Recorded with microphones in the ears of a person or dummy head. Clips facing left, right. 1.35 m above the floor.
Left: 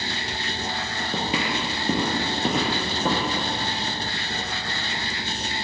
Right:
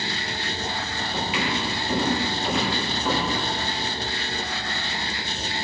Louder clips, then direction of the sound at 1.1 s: Left 1 dB; 30° left (ahead or behind).